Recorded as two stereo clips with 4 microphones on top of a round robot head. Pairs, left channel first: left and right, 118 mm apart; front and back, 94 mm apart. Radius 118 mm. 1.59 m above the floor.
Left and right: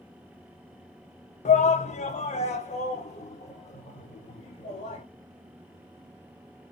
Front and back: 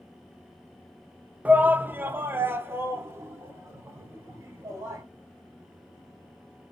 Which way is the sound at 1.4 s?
105° left.